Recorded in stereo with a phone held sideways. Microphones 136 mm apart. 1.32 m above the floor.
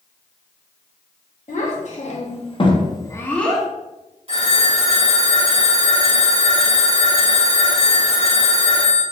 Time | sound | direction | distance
1.5 | a child speaking | 65° left (ahead or behind) | 1.4 m
4.3 | a phone ringing | 45° right (ahead or behind) | 1.6 m